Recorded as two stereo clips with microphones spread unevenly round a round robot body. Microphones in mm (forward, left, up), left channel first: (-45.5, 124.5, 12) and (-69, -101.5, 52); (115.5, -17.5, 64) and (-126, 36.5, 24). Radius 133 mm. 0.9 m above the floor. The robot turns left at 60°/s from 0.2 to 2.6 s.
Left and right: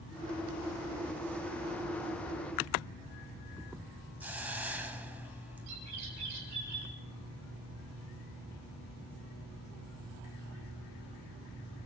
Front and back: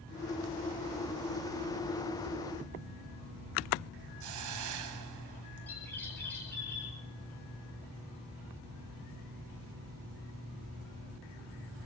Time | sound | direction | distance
4.2 | a hiss | straight behind | 2.5 m
5.7 | a bird | 95° right | 8.5 m